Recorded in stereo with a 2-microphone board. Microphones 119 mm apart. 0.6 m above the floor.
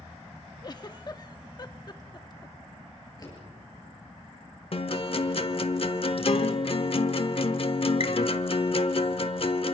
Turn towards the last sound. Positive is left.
turn(degrees=50)  # may be behind; listen again after turning